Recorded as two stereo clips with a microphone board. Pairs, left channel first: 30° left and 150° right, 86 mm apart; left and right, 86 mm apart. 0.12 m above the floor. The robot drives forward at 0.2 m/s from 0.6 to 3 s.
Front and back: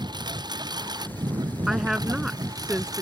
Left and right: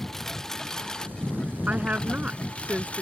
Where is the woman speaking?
70° right; by 3.0 s 115° right.